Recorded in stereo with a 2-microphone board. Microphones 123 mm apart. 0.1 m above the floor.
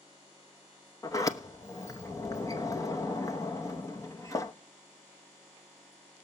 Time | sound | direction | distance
1.0 | a sliding door | 25° left (ahead or behind) | 1.0 m